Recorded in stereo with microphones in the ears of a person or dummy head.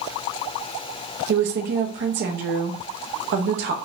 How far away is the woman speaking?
About 0.6 m.